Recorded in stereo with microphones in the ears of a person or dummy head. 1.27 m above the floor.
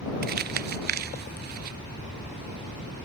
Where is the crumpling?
45° right (ahead or behind).